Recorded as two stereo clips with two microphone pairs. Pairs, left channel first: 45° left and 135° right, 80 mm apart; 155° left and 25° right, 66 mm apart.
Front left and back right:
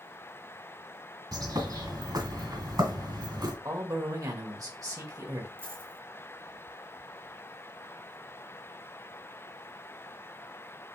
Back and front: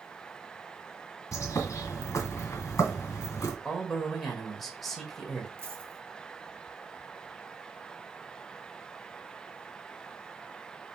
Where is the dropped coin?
75° right, 1.4 m.